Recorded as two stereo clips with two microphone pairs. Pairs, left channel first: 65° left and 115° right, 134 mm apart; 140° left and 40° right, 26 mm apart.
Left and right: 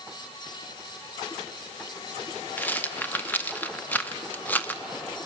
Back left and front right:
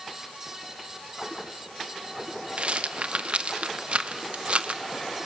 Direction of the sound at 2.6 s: 10° right.